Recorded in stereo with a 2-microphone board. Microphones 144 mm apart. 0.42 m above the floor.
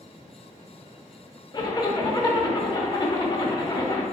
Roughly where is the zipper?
Left.